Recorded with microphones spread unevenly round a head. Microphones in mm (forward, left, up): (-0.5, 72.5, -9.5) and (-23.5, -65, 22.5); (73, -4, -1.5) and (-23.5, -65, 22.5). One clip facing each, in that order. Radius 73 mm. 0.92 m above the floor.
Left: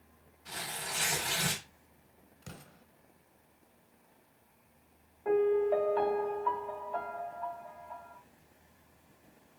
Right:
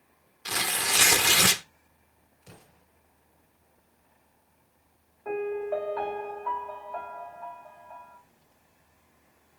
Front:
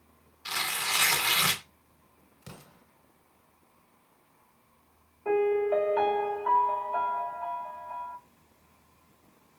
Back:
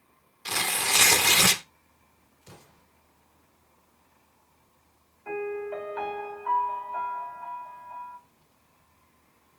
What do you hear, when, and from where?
0.5 s tearing paper: 105° right, 0.8 m
2.4 s an explosion: 50° left, 2.5 m
5.2 s a piano: 10° left, 3.5 m